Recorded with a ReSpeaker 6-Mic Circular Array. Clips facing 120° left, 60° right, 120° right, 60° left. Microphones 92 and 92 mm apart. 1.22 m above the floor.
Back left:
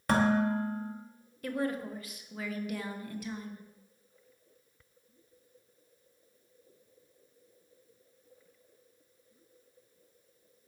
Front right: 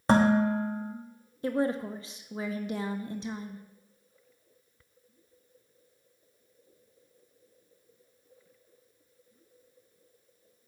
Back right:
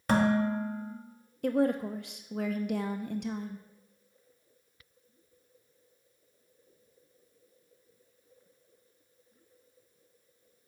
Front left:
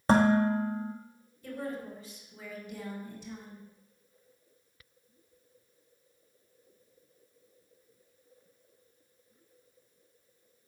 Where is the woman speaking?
120° right, 1.1 m.